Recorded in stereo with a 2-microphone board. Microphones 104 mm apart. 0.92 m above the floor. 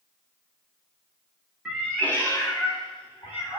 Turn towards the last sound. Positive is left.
turn(degrees=65)  # may be behind; listen again after turning